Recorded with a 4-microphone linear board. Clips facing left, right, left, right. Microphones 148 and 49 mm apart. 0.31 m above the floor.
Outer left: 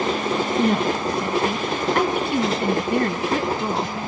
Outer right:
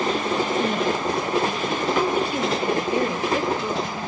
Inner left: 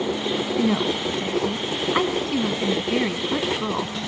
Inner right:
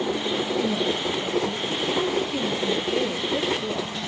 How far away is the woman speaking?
About 2.5 m.